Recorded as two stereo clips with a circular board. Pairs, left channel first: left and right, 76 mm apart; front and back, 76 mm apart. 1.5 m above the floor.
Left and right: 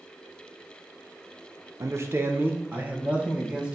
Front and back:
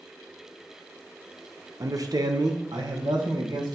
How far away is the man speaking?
About 0.7 m.